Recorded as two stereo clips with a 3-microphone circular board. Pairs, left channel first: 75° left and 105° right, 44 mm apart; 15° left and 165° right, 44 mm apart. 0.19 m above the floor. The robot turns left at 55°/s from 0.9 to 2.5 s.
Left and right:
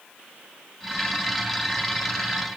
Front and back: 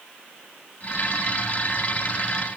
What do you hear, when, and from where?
Only background noise.